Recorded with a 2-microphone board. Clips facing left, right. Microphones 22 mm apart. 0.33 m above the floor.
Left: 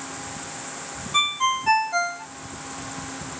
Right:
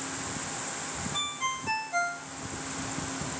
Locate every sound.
1.1 s a ringtone: 70° left (ahead or behind), 0.7 m